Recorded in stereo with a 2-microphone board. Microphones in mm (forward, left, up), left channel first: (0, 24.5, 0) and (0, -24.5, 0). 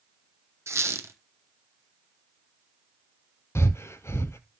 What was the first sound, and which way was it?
A squeak, 80° right.